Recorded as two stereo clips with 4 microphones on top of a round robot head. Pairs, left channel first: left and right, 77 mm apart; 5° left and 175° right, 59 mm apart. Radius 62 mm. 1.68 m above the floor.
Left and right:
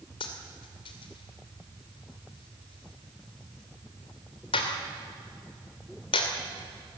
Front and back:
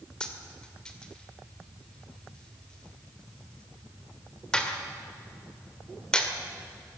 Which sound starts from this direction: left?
A dropped coin, at 0.2 s.